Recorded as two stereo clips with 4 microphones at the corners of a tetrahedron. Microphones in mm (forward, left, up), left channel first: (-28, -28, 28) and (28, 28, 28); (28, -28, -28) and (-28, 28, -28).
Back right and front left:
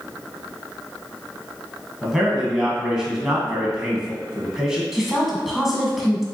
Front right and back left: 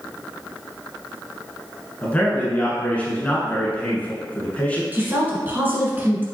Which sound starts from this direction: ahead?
A man speaking, at 2.0 s.